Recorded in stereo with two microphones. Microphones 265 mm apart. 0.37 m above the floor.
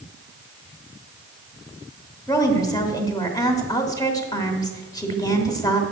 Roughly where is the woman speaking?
Centre.